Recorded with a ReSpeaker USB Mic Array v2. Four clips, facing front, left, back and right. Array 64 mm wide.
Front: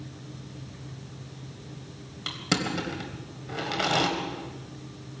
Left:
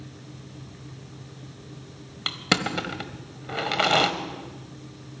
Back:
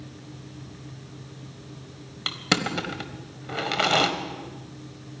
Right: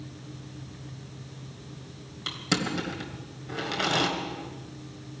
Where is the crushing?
115° left, 1.4 m.